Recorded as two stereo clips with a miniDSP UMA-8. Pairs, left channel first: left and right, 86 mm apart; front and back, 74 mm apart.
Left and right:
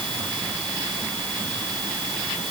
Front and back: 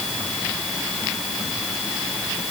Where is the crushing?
No crushing in this recording.